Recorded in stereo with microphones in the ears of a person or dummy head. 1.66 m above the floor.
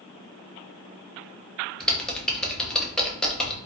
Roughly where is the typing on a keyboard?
Centre.